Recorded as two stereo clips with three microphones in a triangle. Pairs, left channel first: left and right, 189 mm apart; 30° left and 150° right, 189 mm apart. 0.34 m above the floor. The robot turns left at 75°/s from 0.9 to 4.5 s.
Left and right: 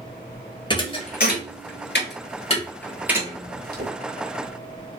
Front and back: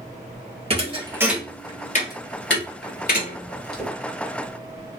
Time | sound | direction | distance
0.7 | a thud | 155° left | 0.8 m